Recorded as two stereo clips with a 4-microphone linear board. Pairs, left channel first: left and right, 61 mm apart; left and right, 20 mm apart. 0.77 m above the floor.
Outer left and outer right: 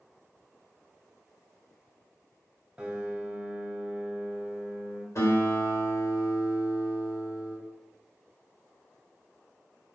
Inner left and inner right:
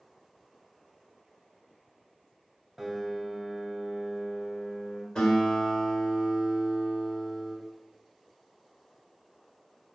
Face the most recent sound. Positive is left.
turn(degrees=50)  # may be behind; listen again after turning